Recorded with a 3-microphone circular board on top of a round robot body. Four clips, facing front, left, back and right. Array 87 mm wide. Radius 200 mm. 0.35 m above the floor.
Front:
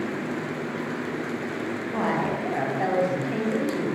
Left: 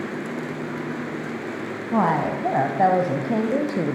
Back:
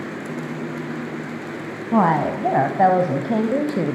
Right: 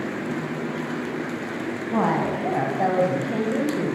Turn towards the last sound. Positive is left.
turn(degrees=150)